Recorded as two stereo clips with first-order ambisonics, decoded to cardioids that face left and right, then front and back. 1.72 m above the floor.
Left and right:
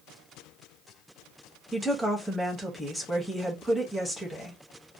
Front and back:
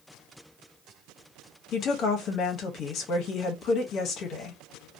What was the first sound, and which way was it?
A woman speaking, 10° left.